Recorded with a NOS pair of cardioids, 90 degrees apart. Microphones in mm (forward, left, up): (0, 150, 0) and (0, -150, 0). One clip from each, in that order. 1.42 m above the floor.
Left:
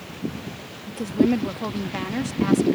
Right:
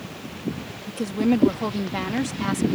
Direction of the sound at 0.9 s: 10° right.